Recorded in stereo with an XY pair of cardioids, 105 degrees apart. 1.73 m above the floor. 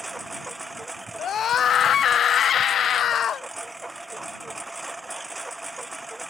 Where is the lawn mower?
10° right.